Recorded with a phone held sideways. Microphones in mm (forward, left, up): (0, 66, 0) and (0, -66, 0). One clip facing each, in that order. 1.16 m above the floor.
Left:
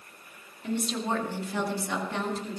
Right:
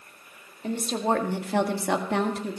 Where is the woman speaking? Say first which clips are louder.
Right 4 dB; 45° right (ahead or behind), 2 m; by 2.6 s 65° right (ahead or behind), 2 m.